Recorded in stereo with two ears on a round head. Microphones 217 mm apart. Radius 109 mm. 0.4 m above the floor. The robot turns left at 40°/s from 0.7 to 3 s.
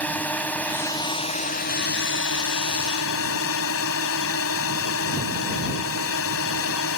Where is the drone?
175° left; by 7.0 s 80° left.